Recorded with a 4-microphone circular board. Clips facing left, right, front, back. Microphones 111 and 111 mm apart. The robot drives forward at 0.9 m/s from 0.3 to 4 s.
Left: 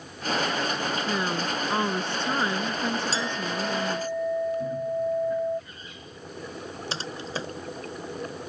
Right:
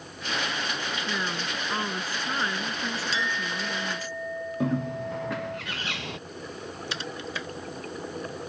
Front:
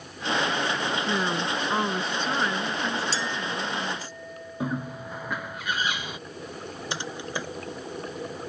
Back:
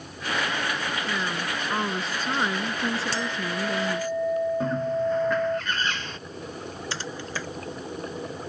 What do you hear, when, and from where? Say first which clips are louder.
1.1 s a woman speaking: left 4 dB, front 3 dB; 35° left; by 4.1 s 160° left
3.1 s a clink: left 2 dB, back 1 dB; 145° left; by 5.6 s 150° left
4.6 s a bird: left 1 dB, back 7 dB; 80° right
6.9 s typing on a keyboard: left 2 dB, front 3 dB; 60° left